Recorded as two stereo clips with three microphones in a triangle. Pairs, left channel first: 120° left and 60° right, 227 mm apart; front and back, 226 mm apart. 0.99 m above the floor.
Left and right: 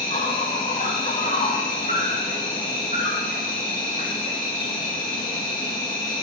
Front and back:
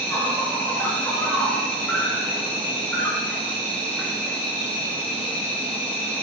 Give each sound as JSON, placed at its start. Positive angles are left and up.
{"t": 0.0, "sound": "an insect", "azimuth_deg": 80, "distance_m": 2.5}